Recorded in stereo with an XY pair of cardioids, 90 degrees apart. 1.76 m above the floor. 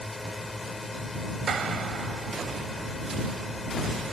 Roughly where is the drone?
Ahead left.